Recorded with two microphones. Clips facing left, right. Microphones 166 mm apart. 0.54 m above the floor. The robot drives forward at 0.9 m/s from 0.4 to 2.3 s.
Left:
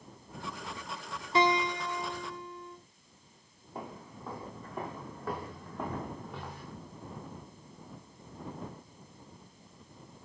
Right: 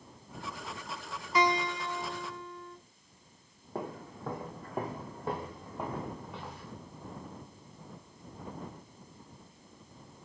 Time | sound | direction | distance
1.4 | a guitar | 30° left (ahead or behind) | 0.5 m
3.8 | footsteps | 70° right (ahead or behind) | 1.3 m